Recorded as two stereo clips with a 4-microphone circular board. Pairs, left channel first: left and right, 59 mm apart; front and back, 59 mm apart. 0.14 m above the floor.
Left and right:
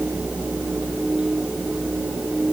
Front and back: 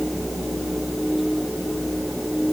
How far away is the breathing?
No breathing in this recording.